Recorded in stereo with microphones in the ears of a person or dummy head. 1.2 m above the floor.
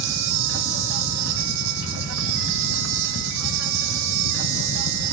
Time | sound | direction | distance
0.0 | an insect | 65° right (ahead or behind) | 2 m